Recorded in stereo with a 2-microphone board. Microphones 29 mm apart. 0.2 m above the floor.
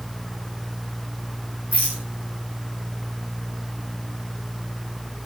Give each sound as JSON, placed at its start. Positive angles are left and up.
{"t": 1.7, "sound": "a rattle", "side_deg": -80, "distance_m": 9.5}